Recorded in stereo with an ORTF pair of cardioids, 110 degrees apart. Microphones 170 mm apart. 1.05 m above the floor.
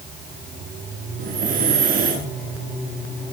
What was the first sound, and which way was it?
Breathing, 50° right.